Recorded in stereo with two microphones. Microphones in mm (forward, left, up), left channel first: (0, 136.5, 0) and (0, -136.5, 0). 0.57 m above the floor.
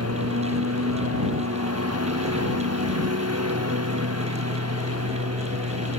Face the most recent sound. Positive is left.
turn(degrees=-70)  # may be behind; listen again after turning